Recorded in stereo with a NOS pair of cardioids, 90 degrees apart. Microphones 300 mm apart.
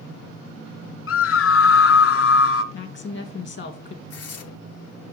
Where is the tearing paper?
55° left, 1.0 m.